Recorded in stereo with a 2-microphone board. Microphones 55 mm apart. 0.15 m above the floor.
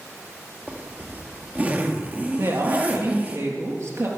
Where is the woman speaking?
60° right (ahead or behind), 4 m.